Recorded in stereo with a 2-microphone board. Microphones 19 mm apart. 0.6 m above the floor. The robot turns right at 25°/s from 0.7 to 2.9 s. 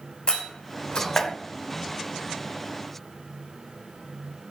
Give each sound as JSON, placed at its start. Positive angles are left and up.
{"t": 0.3, "sound": "a door slam", "side_deg": 50, "distance_m": 1.7}